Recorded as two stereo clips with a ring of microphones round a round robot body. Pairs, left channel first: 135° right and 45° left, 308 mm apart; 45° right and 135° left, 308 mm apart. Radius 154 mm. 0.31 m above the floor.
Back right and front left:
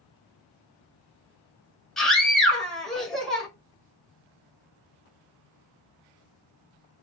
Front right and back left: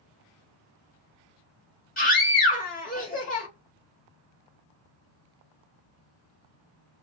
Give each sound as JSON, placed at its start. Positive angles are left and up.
{"t": 2.0, "sound": "a scream", "azimuth_deg": -50, "distance_m": 0.9}